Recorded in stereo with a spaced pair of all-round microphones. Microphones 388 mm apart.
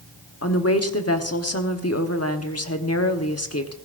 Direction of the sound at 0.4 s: 40° left (ahead or behind).